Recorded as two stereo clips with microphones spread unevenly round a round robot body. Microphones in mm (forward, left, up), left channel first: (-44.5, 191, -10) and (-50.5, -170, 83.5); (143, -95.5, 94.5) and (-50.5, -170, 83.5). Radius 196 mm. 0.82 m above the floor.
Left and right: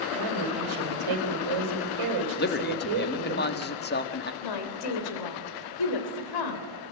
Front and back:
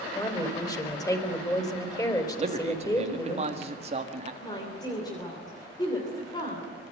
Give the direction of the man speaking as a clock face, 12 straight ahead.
7 o'clock.